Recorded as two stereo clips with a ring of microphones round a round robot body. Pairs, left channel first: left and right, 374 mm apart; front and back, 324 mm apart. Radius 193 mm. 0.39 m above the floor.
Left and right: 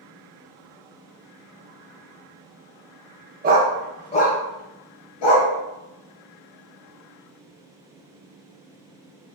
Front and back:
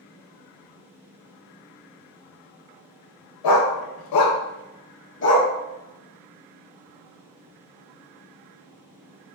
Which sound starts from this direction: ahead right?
A dog barking, at 3.4 s.